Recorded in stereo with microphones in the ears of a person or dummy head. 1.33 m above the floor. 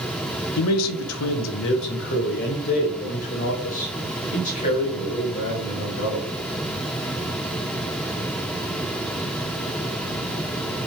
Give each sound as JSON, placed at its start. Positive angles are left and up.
{"t": 0.6, "sound": "a man speaking", "side_deg": 80, "distance_m": 0.7}